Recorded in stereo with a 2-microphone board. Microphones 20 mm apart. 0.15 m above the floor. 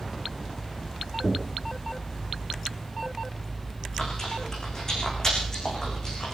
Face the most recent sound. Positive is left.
turn(degrees=25)  # may be behind; listen again after turning